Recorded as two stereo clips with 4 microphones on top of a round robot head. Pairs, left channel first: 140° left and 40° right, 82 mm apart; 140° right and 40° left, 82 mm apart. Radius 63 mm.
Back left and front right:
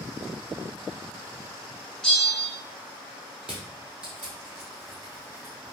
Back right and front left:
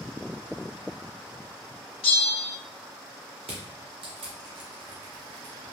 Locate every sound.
2.0 s a bell: 135° right, 1.2 m
3.4 s crushing: 35° left, 0.9 m